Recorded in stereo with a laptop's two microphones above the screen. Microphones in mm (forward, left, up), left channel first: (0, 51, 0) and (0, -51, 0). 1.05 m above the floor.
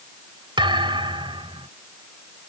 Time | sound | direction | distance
0.6 | a thud | 55° right (ahead or behind) | ?